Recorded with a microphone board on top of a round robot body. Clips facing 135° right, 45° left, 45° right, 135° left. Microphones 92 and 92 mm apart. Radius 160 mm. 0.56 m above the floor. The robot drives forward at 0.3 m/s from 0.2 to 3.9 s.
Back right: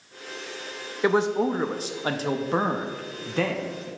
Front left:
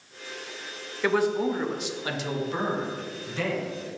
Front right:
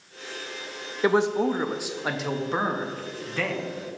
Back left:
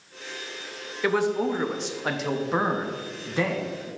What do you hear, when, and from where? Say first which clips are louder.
1.0 s a man speaking: back right 2 dB, front right 2 dB; 85° right, 0.7 m; by 3.9 s 160° right, 1.1 m